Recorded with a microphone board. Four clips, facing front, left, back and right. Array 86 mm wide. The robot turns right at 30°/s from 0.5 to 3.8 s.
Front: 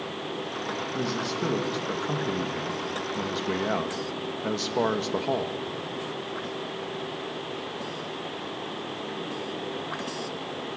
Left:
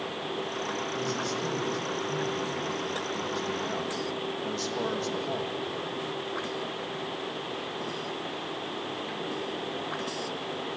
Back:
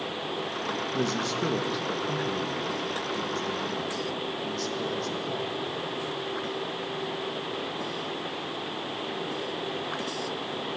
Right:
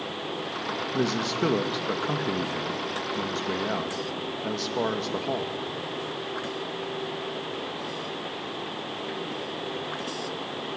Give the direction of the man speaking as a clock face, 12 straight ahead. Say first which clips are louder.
Right 8 dB, back 1 dB; 4 o'clock.